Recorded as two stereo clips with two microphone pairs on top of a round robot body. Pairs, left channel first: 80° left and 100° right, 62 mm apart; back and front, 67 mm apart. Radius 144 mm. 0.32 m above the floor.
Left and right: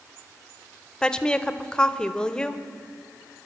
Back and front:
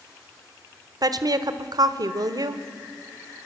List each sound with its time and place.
1.0 s a woman speaking: straight ahead, 1.4 m